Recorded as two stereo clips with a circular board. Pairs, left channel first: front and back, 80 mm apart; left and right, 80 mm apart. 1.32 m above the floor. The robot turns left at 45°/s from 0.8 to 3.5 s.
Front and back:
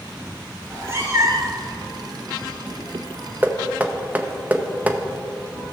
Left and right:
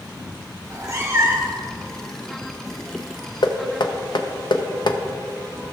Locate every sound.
0.6 s a cat meowing: 125° right, 1.5 m; by 1.6 s 160° right, 1.5 m
3.4 s knocking: 115° left, 0.7 m; by 5.0 s 110° left, 0.7 m